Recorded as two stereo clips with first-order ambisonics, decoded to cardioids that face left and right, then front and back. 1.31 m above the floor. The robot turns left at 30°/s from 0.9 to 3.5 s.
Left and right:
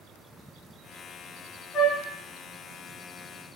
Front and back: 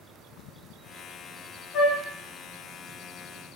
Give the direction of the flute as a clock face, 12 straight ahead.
11 o'clock.